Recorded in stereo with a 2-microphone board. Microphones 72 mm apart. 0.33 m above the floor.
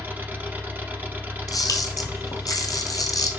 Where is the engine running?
25° right (ahead or behind), 0.8 m.